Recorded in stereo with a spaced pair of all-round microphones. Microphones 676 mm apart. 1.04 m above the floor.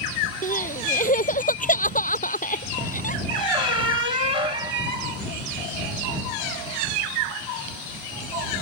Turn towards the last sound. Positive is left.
turn(degrees=50)  # may be behind; listen again after turning